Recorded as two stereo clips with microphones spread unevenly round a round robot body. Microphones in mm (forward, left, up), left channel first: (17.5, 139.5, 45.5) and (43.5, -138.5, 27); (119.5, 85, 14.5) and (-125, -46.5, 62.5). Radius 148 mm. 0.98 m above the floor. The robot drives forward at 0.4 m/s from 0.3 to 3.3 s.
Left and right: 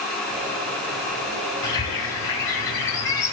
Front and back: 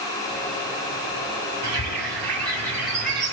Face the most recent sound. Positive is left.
turn(degrees=175)